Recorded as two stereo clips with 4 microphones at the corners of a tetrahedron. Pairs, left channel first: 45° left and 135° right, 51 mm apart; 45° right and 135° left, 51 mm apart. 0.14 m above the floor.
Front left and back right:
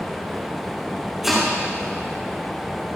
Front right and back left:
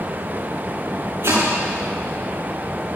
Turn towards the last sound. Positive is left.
turn(degrees=140)